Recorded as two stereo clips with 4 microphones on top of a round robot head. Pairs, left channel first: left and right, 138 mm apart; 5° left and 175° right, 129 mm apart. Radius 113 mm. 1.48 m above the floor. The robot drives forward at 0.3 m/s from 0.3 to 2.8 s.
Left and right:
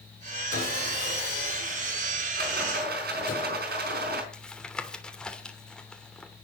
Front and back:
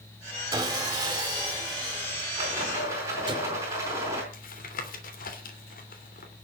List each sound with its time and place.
0.5 s sawing: 120° left, 3.5 m; by 3.4 s 130° left, 4 m
2.4 s a rattle: 100° right, 4.5 m
4.3 s tapping: 5° left, 3 m